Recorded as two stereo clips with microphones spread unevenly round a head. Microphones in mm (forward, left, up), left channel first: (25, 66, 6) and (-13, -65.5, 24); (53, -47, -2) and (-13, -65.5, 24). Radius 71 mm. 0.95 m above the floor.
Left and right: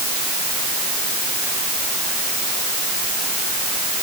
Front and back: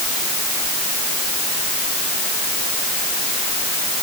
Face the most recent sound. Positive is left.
No sound to turn to.